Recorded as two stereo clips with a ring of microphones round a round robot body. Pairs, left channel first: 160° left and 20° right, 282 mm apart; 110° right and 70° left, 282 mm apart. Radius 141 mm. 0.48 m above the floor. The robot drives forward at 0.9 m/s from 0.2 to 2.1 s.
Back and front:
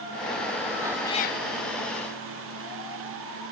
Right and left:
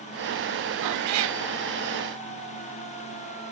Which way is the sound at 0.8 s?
50° left.